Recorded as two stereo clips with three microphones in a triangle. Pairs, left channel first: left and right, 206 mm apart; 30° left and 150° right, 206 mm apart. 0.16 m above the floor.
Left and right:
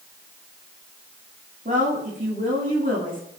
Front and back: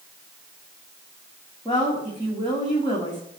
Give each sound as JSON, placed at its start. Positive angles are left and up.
{"t": 1.6, "sound": "a woman speaking", "azimuth_deg": -40, "distance_m": 9.5}